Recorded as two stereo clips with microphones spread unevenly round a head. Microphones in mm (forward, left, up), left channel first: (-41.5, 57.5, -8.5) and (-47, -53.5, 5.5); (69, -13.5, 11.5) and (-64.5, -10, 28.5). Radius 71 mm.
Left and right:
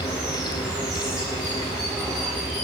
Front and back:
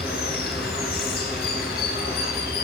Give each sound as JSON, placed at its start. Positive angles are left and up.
{"t": 0.0, "sound": "running water", "azimuth_deg": -10, "distance_m": 3.5}